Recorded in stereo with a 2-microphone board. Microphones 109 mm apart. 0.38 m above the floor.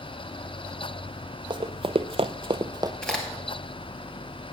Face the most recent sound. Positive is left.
turn(degrees=5)  # may be behind; listen again after turning